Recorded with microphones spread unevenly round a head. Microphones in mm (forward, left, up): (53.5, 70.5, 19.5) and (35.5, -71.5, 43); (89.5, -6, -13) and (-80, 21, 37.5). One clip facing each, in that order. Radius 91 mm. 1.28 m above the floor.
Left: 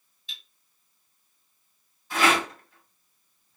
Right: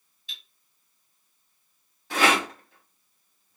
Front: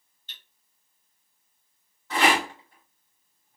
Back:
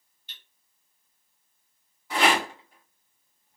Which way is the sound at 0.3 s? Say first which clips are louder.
Even, front 1 dB; 100° left.